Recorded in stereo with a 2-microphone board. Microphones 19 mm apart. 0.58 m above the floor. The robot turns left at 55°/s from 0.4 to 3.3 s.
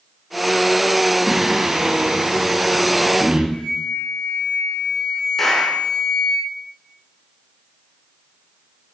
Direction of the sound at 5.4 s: 20° left (ahead or behind).